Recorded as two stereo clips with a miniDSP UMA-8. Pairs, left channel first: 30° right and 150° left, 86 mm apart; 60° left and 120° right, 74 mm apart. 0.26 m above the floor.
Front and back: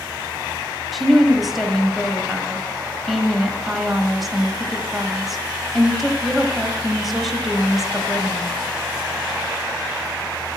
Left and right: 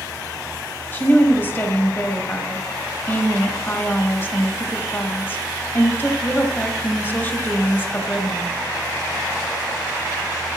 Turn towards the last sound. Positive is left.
turn(degrees=60)